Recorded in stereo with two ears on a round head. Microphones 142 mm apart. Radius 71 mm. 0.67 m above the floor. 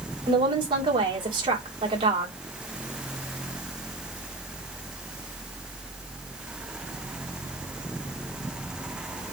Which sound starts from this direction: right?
A woman speaking, at 0.3 s.